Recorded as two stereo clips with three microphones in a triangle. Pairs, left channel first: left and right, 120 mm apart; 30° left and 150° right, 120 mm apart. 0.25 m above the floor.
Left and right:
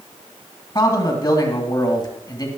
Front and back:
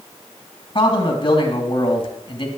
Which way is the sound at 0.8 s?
50° left.